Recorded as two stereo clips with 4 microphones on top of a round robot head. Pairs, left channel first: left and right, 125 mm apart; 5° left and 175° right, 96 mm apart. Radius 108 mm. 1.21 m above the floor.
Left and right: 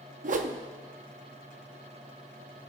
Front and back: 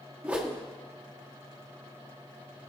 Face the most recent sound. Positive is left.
turn(degrees=-95)